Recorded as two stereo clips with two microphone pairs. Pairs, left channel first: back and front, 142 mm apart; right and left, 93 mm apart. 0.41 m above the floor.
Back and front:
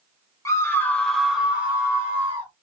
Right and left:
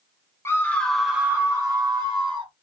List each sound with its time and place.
0.5 s a scream: 125° right, 0.8 m; by 2.5 s 65° left, 1.4 m